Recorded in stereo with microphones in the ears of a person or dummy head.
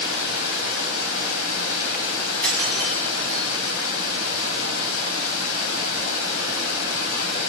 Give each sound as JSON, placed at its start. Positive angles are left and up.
{"t": 0.0, "sound": "running water", "side_deg": 75, "distance_m": 5.5}
{"t": 2.4, "sound": "breaking glass", "side_deg": 15, "distance_m": 6.5}